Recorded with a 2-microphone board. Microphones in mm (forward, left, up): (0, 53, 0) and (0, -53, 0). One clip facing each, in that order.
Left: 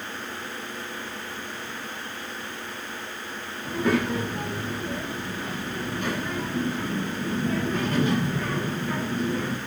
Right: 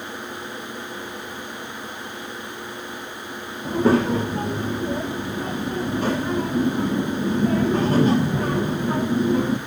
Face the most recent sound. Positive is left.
turn(degrees=-35)  # may be behind; listen again after turning